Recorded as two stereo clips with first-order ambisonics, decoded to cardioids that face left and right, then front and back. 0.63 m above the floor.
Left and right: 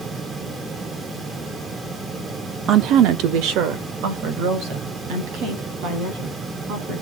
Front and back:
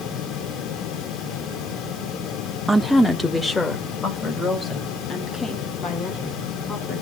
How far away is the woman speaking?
About 0.7 m.